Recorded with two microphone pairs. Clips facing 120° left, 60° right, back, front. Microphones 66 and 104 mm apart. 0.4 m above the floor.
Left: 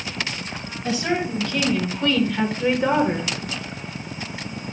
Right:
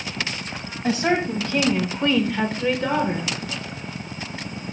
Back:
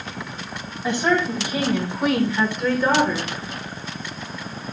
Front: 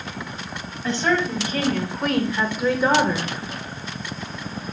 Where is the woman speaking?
105° right, 2.5 m; by 3.3 s 70° left, 1.6 m.